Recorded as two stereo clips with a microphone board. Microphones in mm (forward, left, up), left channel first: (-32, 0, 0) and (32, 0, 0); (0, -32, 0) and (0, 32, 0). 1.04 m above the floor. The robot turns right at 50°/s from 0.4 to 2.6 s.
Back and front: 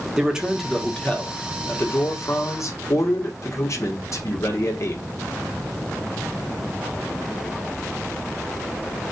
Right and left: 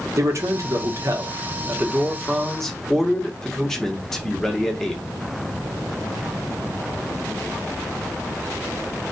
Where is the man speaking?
75° left, 1.1 m; by 5.0 s 175° right, 1.1 m.